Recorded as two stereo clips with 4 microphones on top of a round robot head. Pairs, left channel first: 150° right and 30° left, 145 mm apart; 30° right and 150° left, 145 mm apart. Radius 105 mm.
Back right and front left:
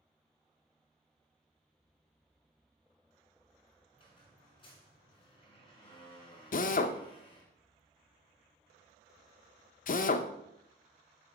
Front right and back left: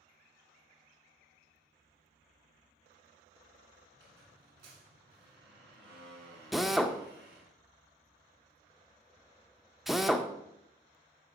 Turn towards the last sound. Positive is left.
turn(degrees=-120)